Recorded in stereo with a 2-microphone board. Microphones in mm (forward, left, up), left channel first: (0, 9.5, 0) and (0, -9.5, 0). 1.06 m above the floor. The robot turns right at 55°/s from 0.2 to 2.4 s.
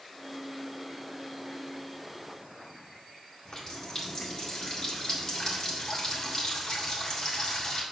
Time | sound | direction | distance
3.5 | a running tap | 45° left (ahead or behind) | 1.8 m